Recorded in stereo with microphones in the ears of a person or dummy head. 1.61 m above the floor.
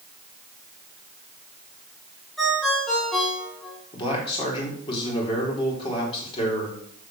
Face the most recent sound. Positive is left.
turn(degrees=30)  # may be behind; listen again after turning